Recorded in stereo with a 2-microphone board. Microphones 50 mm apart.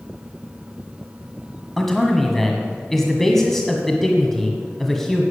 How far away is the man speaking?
About 1.6 m.